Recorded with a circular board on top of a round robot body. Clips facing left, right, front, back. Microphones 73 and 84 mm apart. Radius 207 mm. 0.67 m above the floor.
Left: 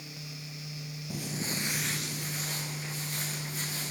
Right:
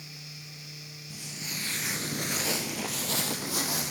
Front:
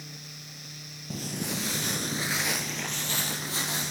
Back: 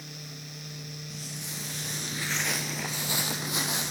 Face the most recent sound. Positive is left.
turn(degrees=-110)